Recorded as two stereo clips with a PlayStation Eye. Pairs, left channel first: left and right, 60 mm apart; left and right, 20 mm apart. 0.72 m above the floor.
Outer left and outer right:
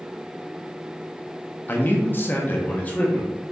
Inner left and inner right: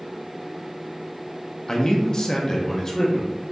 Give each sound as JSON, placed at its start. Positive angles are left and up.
{"t": 1.7, "sound": "a man speaking", "side_deg": 35, "distance_m": 0.6}